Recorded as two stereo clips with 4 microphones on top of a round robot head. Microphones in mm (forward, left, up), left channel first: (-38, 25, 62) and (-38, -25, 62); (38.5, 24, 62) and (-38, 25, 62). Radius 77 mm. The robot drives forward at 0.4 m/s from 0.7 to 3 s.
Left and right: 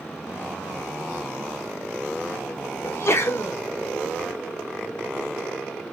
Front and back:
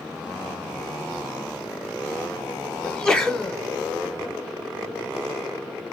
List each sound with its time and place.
2.8 s a sneeze: 75° left, 1.3 m; by 3.5 s 80° left, 1.3 m